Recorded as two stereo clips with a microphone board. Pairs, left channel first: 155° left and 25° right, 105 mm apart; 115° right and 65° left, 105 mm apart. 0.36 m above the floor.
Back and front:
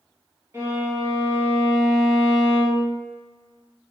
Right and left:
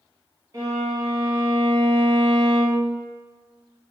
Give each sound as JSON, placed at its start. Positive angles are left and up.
{"t": 0.5, "sound": "a violin", "azimuth_deg": 20, "distance_m": 1.7}